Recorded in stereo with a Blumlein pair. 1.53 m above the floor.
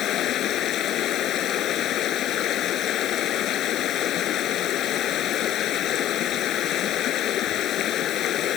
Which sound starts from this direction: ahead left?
Running water, at 0.0 s.